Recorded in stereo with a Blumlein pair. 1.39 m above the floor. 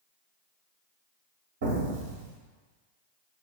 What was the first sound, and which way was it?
An explosion, 55° right.